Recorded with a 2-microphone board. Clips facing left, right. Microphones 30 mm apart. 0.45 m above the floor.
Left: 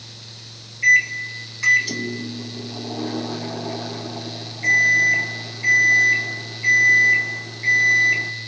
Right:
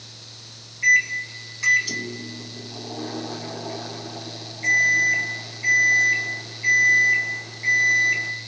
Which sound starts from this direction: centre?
A microwave, at 0.8 s.